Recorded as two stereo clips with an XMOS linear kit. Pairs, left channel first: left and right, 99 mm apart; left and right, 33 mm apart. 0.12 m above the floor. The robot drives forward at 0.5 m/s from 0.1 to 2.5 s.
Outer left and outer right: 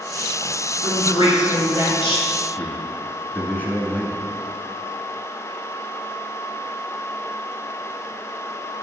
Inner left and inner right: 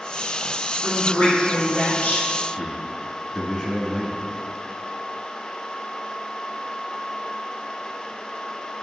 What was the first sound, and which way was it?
A woman speaking, 60° left (ahead or behind).